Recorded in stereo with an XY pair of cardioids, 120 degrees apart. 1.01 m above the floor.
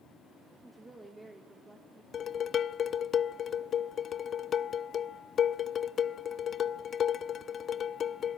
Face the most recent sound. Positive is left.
turn(degrees=45)